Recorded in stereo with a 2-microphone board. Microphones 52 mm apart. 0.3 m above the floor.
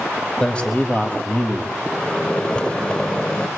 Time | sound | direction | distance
0.4 | a man speaking | 20° left (ahead or behind) | 1.4 m
1.8 | a microwave | 20° left (ahead or behind) | 0.8 m